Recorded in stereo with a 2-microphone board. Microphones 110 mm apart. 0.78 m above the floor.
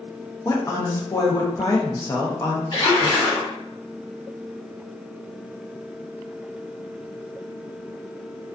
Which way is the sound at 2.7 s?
40° left (ahead or behind).